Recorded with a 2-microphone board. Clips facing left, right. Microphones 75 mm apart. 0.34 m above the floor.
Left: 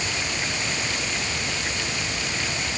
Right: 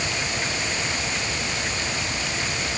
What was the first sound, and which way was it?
Only background noise.